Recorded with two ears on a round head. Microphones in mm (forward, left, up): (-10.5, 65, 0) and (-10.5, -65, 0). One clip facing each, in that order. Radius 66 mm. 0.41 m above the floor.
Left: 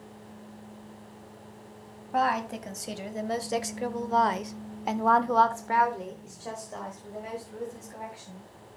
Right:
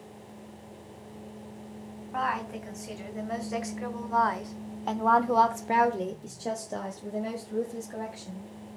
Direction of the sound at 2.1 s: 45° left (ahead or behind).